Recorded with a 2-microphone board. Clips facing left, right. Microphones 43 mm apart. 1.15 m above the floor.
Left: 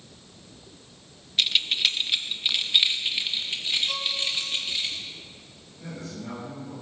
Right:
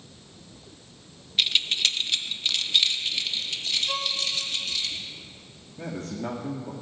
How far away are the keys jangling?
About 0.6 m.